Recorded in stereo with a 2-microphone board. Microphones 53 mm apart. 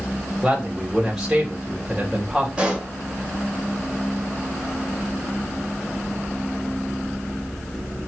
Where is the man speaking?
5° right (ahead or behind), 2 m.